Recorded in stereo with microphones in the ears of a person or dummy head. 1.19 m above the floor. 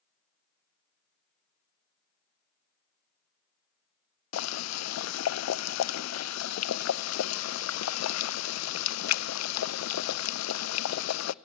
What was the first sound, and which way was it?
Boiling, 75° left (ahead or behind).